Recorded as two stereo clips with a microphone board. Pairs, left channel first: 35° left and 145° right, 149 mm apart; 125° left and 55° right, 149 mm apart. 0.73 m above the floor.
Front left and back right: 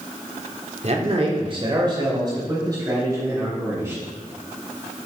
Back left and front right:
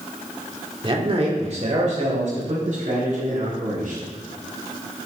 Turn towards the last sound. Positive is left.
turn(degrees=-75)